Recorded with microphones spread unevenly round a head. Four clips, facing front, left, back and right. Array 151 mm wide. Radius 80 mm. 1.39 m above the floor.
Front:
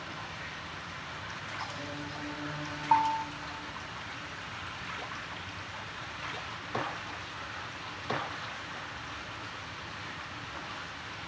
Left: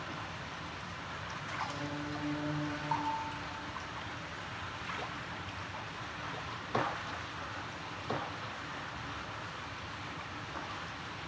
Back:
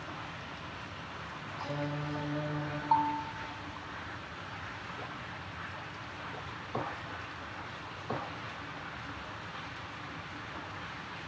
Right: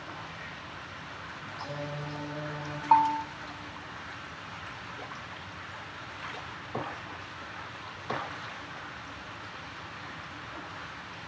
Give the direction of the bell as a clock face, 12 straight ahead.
3 o'clock.